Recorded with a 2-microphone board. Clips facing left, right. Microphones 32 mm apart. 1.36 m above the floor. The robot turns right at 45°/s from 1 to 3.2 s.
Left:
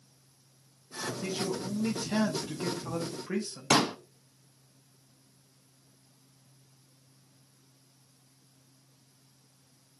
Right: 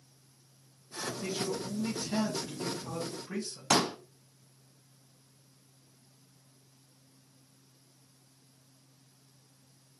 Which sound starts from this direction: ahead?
A man speaking, at 1.2 s.